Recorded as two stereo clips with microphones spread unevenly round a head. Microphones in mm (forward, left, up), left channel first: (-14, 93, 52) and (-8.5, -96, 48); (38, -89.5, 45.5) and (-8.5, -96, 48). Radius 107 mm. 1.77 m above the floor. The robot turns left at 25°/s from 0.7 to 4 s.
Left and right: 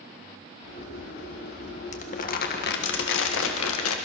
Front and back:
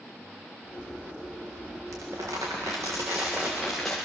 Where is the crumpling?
145° left, 1.6 m; by 4.0 s 95° left, 1.6 m.